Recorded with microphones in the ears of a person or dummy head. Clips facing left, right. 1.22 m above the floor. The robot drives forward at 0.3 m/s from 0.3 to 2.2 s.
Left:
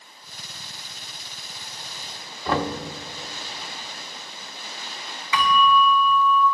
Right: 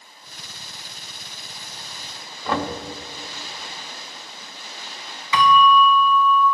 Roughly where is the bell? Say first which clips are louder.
Right 4 dB; right.